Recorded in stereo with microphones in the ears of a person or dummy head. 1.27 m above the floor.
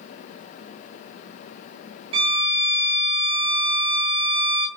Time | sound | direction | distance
2.1 | a violin | 30° right (ahead or behind) | 0.6 m